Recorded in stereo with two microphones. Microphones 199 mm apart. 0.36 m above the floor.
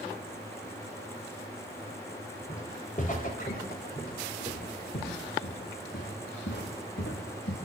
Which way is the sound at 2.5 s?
35° left (ahead or behind).